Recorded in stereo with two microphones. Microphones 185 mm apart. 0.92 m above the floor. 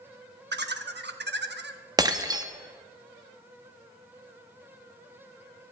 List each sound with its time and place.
0.5 s laughter: 70° right (ahead or behind), 1.0 m
2.0 s breaking glass: 20° right (ahead or behind), 0.7 m